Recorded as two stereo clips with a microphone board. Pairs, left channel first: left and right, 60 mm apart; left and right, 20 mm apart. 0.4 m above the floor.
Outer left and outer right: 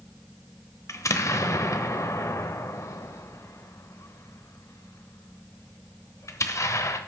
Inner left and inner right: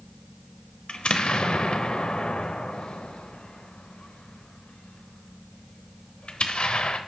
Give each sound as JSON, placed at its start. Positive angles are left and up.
{"t": 0.9, "sound": "an explosion", "side_deg": 55, "distance_m": 0.9}